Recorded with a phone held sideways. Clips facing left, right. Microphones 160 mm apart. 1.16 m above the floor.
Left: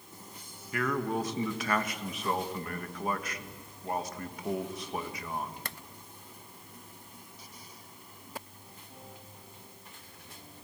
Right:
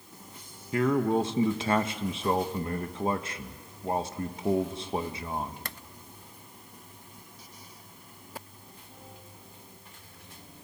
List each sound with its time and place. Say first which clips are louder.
0.7 s a man speaking: right 6 dB; 25° right (ahead or behind), 1.3 m